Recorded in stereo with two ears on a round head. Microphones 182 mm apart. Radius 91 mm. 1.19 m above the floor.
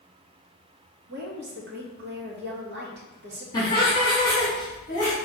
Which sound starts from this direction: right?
A woman speaking, at 1.1 s.